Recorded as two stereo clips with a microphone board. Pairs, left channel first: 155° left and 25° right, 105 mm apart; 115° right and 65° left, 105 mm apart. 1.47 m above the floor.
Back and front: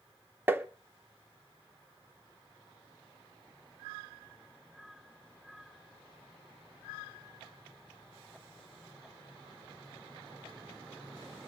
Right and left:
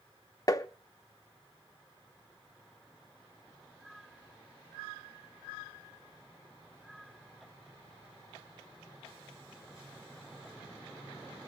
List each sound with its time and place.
0.5 s tapping: 80° right, 0.6 m